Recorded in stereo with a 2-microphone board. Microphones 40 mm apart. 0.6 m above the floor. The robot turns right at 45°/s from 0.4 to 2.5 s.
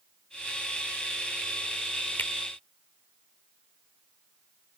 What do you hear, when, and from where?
2.2 s a finger snap: 65° left (ahead or behind)